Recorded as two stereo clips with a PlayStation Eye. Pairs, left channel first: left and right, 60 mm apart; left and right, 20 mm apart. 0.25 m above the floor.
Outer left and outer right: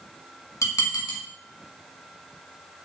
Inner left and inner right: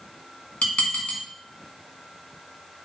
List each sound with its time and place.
0.6 s dishes clattering: 65° left (ahead or behind), 1.4 m